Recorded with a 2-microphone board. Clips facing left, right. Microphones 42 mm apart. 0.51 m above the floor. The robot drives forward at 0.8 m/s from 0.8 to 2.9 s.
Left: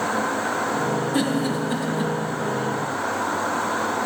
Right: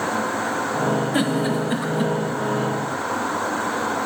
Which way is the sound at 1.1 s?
25° right (ahead or behind).